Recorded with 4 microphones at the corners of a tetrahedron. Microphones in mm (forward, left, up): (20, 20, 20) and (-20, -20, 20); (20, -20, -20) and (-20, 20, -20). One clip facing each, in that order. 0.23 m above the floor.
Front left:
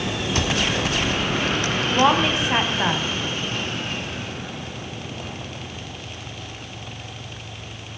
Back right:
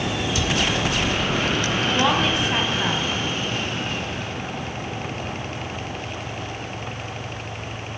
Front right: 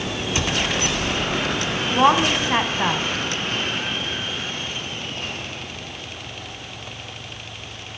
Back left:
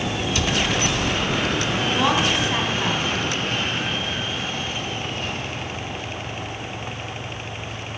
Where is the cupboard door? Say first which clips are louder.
Front left 3 dB, front right 1 dB; 15° left, 1.7 m.